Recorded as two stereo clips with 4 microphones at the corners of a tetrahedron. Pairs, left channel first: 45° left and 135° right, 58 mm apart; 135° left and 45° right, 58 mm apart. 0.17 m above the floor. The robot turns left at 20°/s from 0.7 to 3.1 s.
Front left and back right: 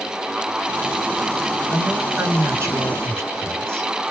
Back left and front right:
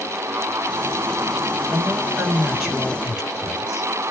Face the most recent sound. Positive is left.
turn(degrees=-115)